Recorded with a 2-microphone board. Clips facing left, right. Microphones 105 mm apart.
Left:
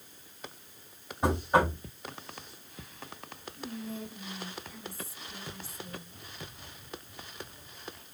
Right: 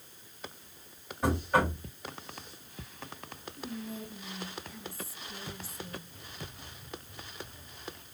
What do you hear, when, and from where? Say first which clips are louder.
1.2 s knocking: left 2 dB; 20° left (ahead or behind), 1.5 m
3.6 s whispering: left 1 dB; centre (ahead or behind), 1.7 m